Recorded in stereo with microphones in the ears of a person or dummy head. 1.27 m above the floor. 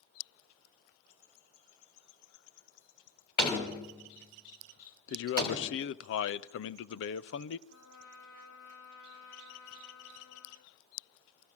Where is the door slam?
25° left (ahead or behind), 3 m.